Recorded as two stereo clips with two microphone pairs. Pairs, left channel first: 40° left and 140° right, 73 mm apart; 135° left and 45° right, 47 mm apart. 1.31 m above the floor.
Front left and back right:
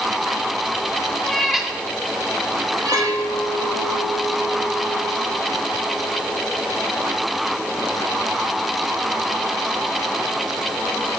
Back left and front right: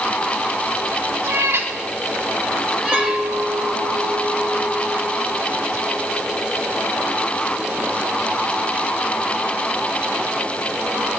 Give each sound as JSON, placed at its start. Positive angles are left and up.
{"t": 1.2, "sound": "a cat meowing", "azimuth_deg": -40, "distance_m": 1.6}
{"t": 2.9, "sound": "a clink", "azimuth_deg": -10, "distance_m": 1.2}